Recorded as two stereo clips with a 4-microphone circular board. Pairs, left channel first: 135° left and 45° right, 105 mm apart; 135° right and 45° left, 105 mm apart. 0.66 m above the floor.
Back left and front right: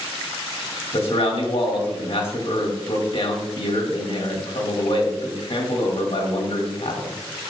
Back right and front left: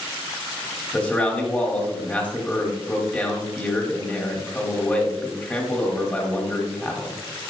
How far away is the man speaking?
About 1.6 m.